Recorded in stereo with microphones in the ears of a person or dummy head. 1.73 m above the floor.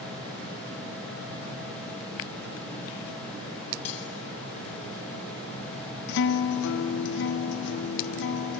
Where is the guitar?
65° left (ahead or behind), 1.0 m.